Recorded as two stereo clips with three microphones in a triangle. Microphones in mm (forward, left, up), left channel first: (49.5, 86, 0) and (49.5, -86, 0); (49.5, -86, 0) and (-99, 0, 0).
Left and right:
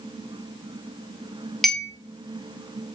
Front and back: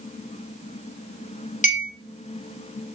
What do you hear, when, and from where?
1.6 s a clink: straight ahead, 0.8 m